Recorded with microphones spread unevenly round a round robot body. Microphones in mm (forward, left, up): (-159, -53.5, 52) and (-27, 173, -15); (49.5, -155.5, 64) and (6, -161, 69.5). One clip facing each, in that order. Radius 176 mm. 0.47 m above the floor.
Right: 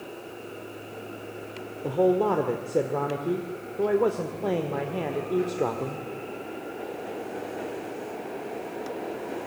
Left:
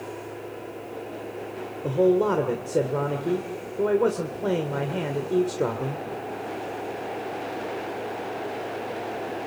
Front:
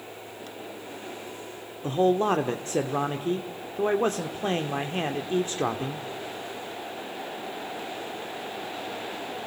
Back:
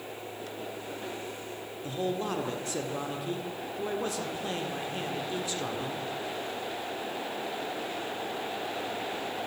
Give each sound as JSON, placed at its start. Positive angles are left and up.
{"t": 1.8, "sound": "a man speaking", "azimuth_deg": 0, "distance_m": 1.6}